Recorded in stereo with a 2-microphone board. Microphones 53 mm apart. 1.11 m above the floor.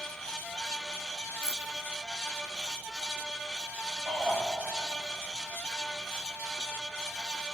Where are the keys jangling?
80° right, 1.6 m.